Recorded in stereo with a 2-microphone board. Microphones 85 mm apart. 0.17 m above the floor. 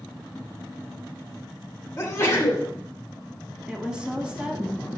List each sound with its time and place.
2.0 s a sneeze: 30° left (ahead or behind), 1.6 m
3.7 s a woman speaking: 10° right (ahead or behind), 1.1 m